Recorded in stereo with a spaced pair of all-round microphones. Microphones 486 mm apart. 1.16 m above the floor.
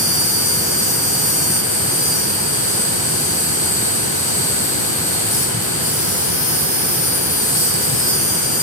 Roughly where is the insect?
Left.